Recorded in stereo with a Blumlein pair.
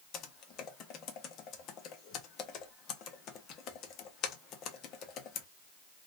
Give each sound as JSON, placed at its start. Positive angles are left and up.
{"t": 0.1, "sound": "typing on a keyboard", "azimuth_deg": 35, "distance_m": 0.7}